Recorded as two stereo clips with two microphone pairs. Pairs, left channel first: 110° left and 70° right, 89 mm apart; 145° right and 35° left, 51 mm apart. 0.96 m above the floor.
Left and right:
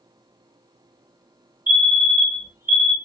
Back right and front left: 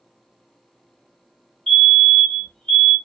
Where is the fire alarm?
90° right, 1.3 m.